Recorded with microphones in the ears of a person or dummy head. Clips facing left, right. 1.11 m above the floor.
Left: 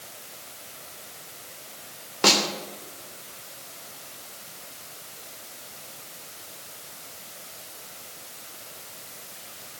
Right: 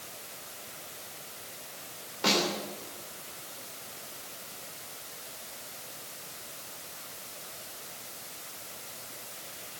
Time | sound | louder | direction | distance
2.2 | a snare drum | left 4 dB | 75° left (ahead or behind) | 3 m